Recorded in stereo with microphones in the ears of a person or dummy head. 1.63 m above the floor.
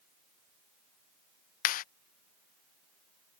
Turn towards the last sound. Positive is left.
turn(degrees=55)  # may be behind; listen again after turning